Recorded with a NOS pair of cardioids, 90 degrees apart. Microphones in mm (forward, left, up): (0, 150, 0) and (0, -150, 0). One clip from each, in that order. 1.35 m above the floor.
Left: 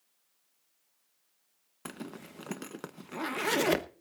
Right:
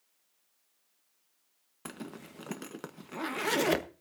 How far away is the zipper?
About 1.0 m.